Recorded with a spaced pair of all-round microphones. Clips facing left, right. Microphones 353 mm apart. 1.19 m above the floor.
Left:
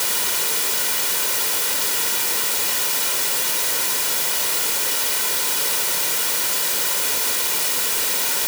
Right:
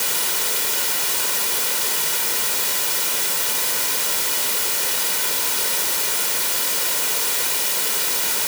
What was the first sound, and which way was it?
Only background noise.